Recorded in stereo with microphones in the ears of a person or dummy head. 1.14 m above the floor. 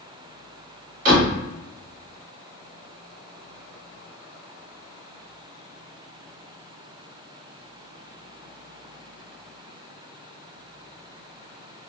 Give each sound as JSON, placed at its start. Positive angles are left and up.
{"t": 1.1, "sound": "a door slam", "side_deg": -55, "distance_m": 1.6}